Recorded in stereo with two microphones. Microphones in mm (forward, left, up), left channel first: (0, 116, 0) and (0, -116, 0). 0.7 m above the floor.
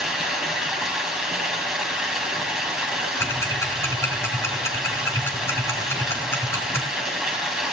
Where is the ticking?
10° left (ahead or behind), 3.5 m.